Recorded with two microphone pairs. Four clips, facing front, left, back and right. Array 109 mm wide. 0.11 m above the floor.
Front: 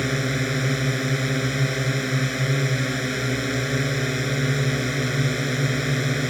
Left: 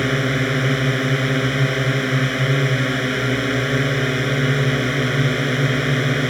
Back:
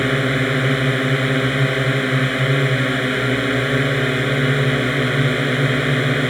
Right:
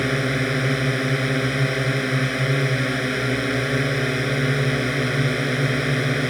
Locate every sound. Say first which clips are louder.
0.0 s a drone: left 2 dB, back 6 dB; 170° left